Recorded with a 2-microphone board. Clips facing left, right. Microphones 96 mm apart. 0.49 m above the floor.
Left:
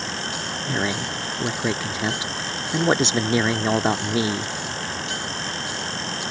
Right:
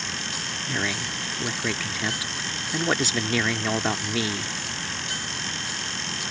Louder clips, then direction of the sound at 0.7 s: Left 4 dB; 25° left (ahead or behind).